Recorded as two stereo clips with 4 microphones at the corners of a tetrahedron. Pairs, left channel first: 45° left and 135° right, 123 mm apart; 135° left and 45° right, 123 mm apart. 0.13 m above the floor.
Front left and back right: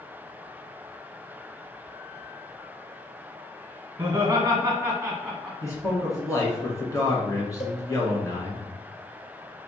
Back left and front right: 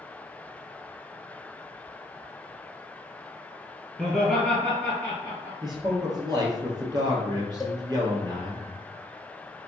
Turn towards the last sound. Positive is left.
turn(degrees=45)